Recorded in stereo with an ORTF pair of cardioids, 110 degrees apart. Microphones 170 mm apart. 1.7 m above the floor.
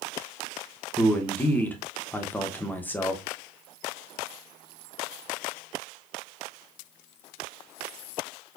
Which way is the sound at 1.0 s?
10° left.